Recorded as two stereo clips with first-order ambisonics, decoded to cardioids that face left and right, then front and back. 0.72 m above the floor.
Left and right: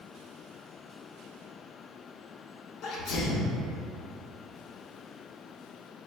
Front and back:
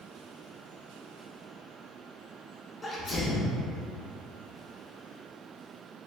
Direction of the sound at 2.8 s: 70° left.